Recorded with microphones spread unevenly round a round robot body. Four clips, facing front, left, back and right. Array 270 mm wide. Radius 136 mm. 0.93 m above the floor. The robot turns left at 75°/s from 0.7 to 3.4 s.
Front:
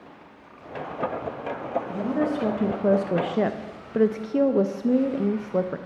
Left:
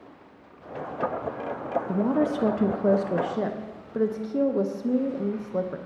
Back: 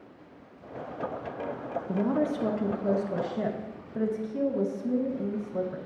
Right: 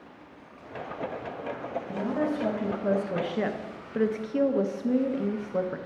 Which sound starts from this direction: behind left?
A woman speaking, at 1.9 s.